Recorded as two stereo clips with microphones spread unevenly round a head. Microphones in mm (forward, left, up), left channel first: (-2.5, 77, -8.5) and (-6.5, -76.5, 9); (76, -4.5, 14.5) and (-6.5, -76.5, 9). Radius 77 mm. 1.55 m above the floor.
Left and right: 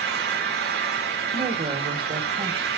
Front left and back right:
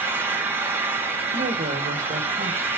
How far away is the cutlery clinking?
No cutlery clinking in this recording.